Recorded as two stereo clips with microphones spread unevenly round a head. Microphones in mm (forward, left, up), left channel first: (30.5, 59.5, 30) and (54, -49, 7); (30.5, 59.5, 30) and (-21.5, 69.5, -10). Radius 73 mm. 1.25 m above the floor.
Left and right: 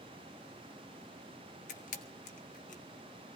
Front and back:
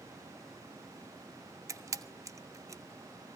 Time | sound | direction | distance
1.7 | a camera shutter | 135° left | 1.2 m